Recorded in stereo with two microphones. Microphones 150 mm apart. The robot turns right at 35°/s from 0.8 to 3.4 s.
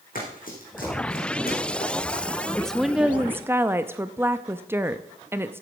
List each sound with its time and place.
0.1 s running footsteps: 70° left (ahead or behind), 4 m
2.5 s a woman speaking: 5° left (ahead or behind), 0.5 m; by 5.6 s 15° right (ahead or behind), 0.5 m